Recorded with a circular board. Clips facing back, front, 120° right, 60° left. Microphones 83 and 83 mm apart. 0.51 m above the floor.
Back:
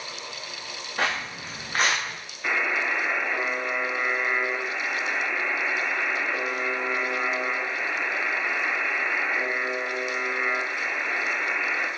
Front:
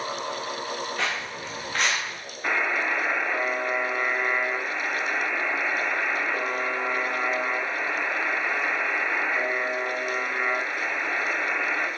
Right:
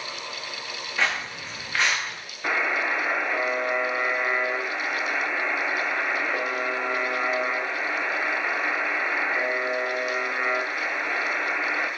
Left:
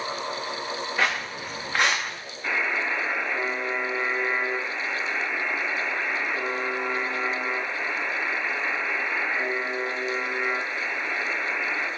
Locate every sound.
1.0 s footsteps: 140° left, 2.5 m; by 2.2 s 125° left, 1.9 m
2.4 s a buzzer: 80° right, 2.0 m